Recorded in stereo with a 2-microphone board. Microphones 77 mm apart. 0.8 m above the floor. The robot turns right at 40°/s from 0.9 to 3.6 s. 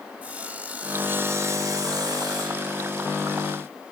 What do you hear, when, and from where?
0.2 s sawing: 160° right, 2.5 m; by 2.7 s 85° right, 2.5 m